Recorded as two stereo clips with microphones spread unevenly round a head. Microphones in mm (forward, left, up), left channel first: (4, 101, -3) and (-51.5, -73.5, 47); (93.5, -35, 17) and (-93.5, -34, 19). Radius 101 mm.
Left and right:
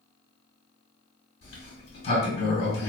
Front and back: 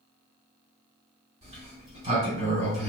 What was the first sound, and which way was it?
A sliding door, 130° left.